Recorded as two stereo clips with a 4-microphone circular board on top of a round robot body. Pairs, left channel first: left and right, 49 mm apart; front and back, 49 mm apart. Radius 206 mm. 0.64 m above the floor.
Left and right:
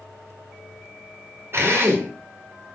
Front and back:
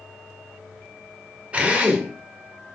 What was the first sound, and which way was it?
A drill, 115° right.